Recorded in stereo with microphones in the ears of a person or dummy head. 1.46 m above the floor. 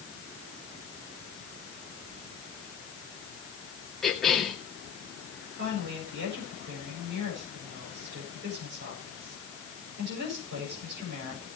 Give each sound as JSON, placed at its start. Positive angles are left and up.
{"t": 4.0, "sound": "a cough", "side_deg": 5, "distance_m": 2.5}
{"t": 5.6, "sound": "a woman speaking", "side_deg": -65, "distance_m": 7.5}